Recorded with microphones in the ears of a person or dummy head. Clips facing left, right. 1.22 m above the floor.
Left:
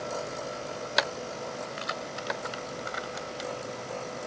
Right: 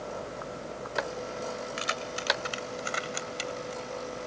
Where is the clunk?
I don't hear a clunk.